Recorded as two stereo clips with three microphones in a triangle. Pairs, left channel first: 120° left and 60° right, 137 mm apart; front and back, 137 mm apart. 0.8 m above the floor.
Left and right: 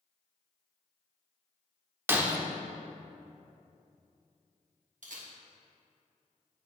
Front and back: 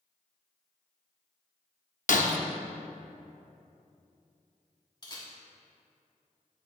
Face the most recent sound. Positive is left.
turn(degrees=-55)